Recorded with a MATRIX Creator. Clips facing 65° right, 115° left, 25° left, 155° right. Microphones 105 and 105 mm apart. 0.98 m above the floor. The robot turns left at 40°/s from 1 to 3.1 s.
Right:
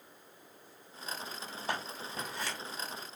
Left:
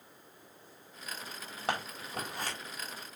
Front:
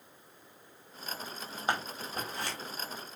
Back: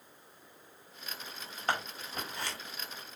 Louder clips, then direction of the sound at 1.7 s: Left 3 dB, front 1 dB; 95° left.